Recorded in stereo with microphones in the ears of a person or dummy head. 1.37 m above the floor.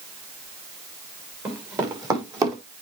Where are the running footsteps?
20° right (ahead or behind), 5.5 m.